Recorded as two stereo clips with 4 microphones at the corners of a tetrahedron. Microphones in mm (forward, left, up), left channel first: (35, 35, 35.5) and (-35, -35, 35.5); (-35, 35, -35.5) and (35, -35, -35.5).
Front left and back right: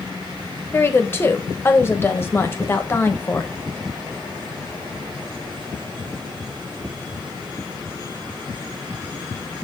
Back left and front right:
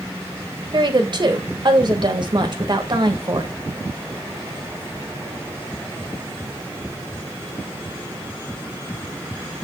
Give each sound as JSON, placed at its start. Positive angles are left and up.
{"t": 0.7, "sound": "a woman speaking", "azimuth_deg": -20, "distance_m": 1.0}